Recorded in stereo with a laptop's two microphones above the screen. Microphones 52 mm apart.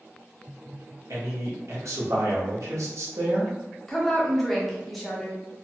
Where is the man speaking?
70° right (ahead or behind), 0.9 m.